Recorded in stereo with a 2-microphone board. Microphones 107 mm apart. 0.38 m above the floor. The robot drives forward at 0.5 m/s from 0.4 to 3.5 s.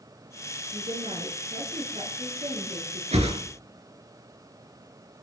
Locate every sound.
0.7 s a woman speaking: 60° right (ahead or behind), 5.5 m; by 3.0 s 55° right (ahead or behind), 6 m
3.1 s a whoosh: 75° right (ahead or behind), 3 m; by 3.4 s 80° right, 3 m